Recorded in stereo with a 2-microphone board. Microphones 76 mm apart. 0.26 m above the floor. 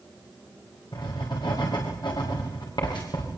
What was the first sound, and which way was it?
Writing, 65° left (ahead or behind).